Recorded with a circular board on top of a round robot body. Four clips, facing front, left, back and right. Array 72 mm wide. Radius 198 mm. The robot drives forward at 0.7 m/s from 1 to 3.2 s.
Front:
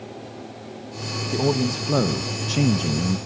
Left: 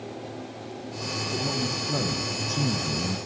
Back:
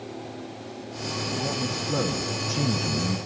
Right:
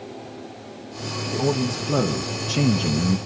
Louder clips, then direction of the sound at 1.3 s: Right 8 dB, front 10 dB; 25° right.